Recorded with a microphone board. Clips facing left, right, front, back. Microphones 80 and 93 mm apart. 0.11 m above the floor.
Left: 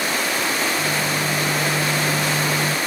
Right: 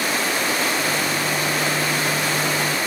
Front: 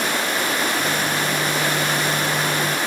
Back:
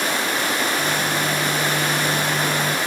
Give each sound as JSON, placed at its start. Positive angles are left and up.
{"t": 0.8, "sound": "a microwave", "azimuth_deg": 105, "distance_m": 2.5}